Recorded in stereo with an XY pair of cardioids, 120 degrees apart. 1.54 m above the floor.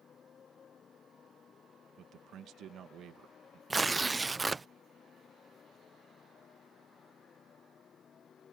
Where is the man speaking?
60° right.